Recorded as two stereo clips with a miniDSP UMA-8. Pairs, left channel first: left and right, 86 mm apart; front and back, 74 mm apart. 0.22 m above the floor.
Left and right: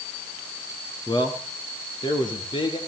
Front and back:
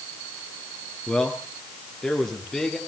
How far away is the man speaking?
About 2.5 m.